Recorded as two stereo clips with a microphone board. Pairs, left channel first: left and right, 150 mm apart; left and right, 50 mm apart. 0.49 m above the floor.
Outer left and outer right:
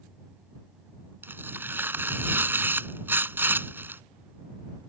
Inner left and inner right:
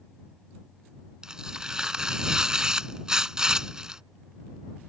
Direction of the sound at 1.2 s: 15° right (ahead or behind).